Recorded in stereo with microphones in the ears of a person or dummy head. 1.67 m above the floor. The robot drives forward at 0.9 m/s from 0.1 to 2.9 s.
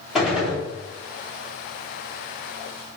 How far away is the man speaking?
I don't hear a man speaking.